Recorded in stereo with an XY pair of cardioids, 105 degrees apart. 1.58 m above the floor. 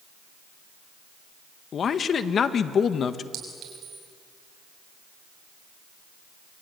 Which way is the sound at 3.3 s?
60° right.